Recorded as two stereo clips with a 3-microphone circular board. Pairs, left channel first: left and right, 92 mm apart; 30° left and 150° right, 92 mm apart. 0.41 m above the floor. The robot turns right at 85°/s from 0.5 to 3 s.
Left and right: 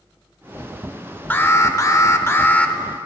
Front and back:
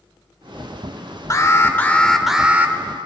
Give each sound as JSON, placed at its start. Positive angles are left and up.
{"t": 1.3, "sound": "an alarm", "azimuth_deg": 40, "distance_m": 0.7}